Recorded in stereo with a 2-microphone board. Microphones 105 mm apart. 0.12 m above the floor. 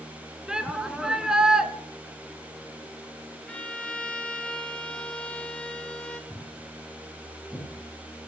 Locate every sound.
0.5 s a shout: 5° right (ahead or behind), 1.2 m
3.5 s a violin: 10° left (ahead or behind), 1.3 m
6.3 s footsteps: 5° left (ahead or behind), 3.5 m